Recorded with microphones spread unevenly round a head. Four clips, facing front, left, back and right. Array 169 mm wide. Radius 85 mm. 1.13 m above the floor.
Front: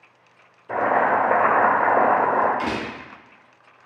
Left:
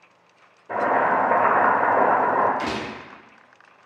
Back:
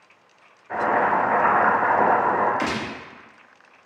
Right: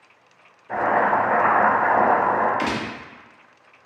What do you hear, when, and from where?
0.7 s boiling: 25° left, 1.6 m
2.6 s a gunshot: 145° right, 0.6 m